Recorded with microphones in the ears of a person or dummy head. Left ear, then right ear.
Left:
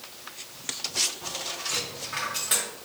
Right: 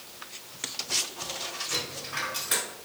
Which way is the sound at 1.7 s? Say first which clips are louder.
Left 2 dB; 20° left (ahead or behind).